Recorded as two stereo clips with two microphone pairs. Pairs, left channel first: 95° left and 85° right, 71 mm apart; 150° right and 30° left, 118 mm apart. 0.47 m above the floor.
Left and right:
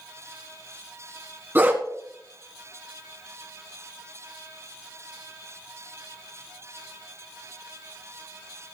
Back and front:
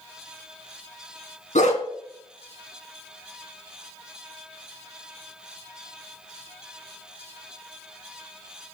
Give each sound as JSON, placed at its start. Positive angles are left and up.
{"t": 1.6, "sound": "a dog barking", "azimuth_deg": -150, "distance_m": 2.0}